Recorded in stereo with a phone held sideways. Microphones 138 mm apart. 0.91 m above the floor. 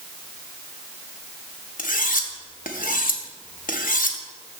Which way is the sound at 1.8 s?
85° left.